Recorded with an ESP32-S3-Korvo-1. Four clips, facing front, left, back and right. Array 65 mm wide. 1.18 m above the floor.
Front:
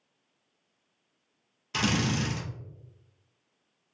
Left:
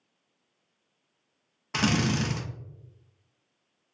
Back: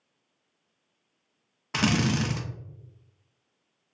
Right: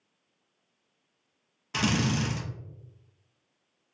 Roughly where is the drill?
Behind left.